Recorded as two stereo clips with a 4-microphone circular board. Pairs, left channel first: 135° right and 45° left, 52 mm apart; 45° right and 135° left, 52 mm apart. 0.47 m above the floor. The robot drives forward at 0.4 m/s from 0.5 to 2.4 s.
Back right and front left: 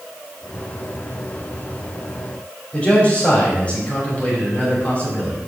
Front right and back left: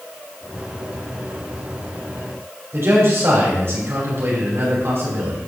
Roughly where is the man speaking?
Behind.